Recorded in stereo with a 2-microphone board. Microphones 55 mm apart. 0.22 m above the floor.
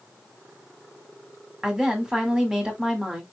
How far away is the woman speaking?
About 1.6 m.